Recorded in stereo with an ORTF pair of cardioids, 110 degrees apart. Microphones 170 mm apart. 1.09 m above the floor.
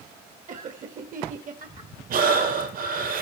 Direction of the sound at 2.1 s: 60° right.